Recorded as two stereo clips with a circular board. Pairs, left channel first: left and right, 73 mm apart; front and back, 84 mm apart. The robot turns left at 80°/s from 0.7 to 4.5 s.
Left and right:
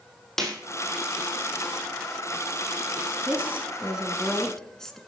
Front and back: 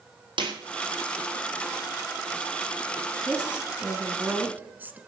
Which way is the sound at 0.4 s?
175° left.